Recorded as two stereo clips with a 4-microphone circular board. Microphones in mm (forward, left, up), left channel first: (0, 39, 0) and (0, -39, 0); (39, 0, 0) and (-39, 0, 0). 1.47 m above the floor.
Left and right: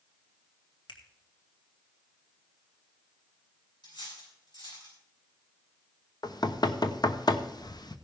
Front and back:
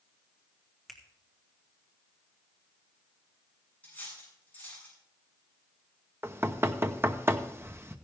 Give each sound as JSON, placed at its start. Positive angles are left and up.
{"t": 0.9, "sound": "a finger snap", "azimuth_deg": 90, "distance_m": 2.0}
{"t": 3.8, "sound": "cutlery clinking", "azimuth_deg": 70, "distance_m": 7.5}
{"t": 6.2, "sound": "knocking", "azimuth_deg": 120, "distance_m": 0.9}